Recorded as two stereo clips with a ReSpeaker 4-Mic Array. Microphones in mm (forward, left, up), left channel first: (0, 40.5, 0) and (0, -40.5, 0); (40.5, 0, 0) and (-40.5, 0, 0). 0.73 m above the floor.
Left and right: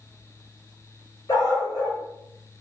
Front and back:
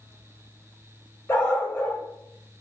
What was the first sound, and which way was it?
A dog barking, 60° left.